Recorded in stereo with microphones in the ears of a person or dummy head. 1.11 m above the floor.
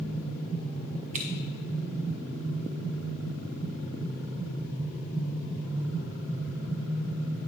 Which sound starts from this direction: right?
Scissors, at 1.1 s.